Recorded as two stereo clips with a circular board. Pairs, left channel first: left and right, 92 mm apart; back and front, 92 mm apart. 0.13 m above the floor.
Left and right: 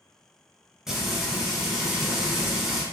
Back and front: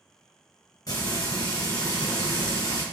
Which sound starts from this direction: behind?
Frying, at 0.9 s.